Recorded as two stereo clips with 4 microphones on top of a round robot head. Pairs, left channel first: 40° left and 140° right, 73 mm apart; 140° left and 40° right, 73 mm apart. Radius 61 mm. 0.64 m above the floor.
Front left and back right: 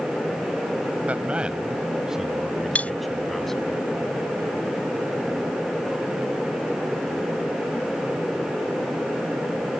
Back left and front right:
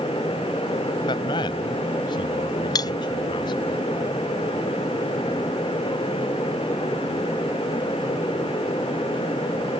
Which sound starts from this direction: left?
Cutlery clinking, at 2.8 s.